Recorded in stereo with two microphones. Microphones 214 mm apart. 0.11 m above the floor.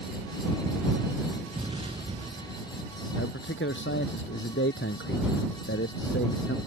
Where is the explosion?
25° right (ahead or behind).